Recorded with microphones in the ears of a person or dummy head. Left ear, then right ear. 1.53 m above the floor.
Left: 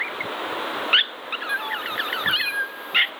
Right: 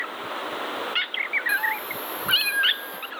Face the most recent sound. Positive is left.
turn(degrees=-5)  # may be behind; listen again after turning